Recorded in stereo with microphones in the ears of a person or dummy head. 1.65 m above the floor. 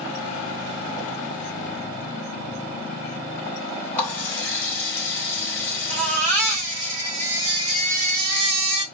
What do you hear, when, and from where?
4.0 s a running tap: 15° left (ahead or behind), 2.0 m
5.9 s a baby crying: 45° right (ahead or behind), 1.5 m